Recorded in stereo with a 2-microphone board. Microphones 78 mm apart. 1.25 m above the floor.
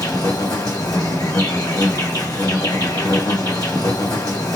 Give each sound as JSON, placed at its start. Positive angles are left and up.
{"t": 0.0, "sound": "an insect", "side_deg": 55, "distance_m": 1.8}